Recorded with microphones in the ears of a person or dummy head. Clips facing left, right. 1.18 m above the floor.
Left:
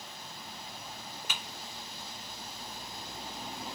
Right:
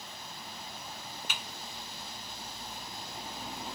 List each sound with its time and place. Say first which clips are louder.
1.3 s typing on a keyboard: left 1 dB; 65° left (ahead or behind), 1.1 m